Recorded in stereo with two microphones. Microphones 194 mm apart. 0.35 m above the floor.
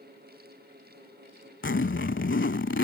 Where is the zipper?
75° left (ahead or behind).